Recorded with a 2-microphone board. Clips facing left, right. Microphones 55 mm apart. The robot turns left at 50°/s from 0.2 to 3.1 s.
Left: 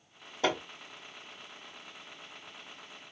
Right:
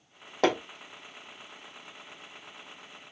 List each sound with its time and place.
0.4 s hammering: 80° right, 1.3 m; by 0.6 s 70° right (ahead or behind), 1.3 m